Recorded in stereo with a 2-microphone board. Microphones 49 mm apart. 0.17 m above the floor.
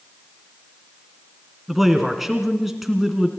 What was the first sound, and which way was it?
A man speaking, 5° right (ahead or behind).